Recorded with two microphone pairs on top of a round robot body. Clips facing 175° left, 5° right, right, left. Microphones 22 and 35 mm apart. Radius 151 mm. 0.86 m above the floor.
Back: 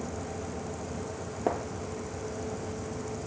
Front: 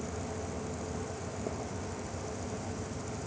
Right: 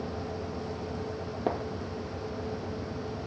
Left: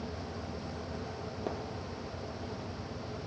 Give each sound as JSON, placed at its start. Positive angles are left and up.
{"t": 1.5, "sound": "a gunshot", "azimuth_deg": -155}